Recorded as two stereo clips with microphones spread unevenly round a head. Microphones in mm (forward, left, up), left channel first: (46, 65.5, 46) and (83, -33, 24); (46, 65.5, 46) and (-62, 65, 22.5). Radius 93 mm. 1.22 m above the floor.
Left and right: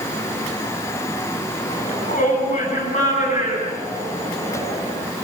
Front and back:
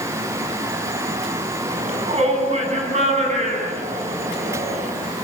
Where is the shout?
155° left, 9 m; by 4.9 s 170° left, 9 m.